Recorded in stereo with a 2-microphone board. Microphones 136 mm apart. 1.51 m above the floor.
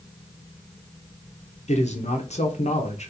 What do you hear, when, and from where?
1.7 s a man speaking: 55° left (ahead or behind), 0.7 m